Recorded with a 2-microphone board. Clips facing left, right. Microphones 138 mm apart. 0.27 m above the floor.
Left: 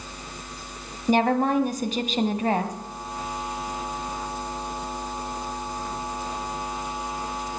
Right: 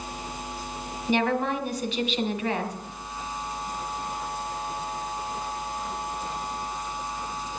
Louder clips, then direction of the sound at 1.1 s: Left 4 dB; 45° left (ahead or behind).